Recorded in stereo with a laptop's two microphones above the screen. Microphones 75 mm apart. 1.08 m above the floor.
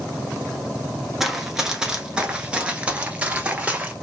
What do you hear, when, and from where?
1.2 s running footsteps: 5° right (ahead or behind), 1.1 m; by 3.9 s 15° right (ahead or behind), 1.5 m